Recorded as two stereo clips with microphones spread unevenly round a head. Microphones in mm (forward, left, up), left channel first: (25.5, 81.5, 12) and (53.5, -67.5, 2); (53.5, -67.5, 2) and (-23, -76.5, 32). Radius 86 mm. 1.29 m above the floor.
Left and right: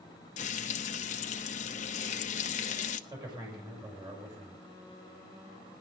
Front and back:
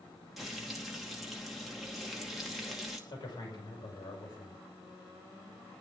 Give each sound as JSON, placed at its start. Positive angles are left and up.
{"t": 0.4, "sound": "frying", "azimuth_deg": 115, "distance_m": 0.8}
{"t": 3.1, "sound": "a man speaking", "azimuth_deg": -20, "distance_m": 5.5}